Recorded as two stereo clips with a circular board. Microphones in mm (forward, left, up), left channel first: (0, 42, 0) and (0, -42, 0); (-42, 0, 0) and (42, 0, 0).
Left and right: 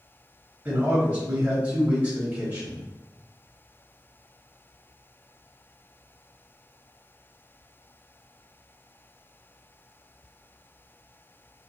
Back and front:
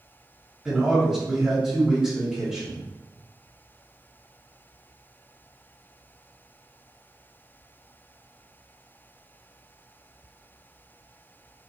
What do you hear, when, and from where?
0.7 s a man speaking: 65° right, 1.4 m